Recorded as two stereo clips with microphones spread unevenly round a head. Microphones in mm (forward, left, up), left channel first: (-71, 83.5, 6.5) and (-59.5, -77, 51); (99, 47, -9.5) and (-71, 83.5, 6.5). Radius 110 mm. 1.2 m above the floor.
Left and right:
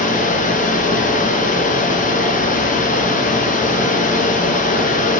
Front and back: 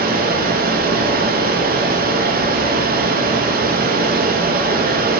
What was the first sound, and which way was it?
Running water, 135° left.